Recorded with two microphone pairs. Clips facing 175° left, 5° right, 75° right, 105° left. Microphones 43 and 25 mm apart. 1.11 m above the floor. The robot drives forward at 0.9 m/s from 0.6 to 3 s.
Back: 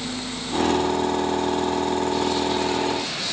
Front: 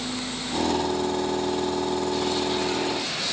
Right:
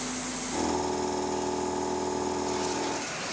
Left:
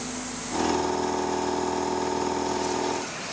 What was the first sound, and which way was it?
Only background noise.